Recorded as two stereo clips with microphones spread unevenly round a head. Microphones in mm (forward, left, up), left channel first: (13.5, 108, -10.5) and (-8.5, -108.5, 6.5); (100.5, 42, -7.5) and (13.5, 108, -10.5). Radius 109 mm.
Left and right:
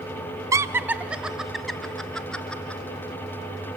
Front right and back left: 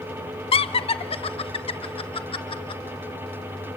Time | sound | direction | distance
0.5 | laughter | 20° right | 0.7 m